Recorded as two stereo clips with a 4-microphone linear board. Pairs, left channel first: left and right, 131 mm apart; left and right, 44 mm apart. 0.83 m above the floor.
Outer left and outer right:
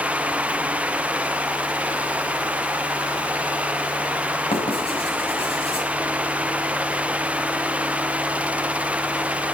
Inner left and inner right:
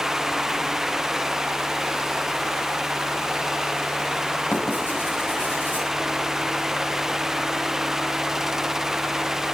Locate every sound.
4.5 s writing: 45° left (ahead or behind), 7 m